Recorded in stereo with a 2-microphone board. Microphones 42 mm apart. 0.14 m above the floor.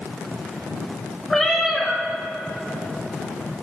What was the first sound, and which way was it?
A cat meowing, 10° left (ahead or behind).